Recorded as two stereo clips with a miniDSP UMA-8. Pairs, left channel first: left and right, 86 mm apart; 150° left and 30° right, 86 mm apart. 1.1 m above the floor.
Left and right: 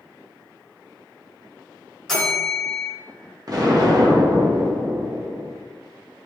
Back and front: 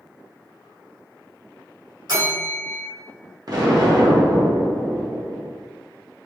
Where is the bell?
5° left, 1.7 m.